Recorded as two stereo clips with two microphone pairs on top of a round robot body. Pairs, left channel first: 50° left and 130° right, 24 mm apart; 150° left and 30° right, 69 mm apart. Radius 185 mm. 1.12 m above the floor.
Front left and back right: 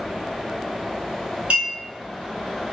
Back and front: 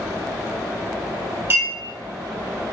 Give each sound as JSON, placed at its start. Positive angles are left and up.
{"t": 1.5, "sound": "a clink", "azimuth_deg": -85, "distance_m": 1.4}